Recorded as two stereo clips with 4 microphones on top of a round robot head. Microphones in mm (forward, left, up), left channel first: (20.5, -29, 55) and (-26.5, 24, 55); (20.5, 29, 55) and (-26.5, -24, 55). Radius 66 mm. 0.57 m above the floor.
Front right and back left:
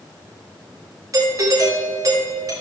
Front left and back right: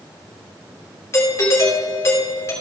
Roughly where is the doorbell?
Left.